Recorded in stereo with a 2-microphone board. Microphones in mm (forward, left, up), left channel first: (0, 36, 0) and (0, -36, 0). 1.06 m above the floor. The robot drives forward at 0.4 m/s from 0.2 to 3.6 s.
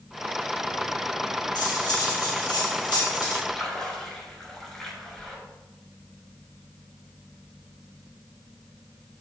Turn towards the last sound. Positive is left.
turn(degrees=5)  # may be behind; listen again after turning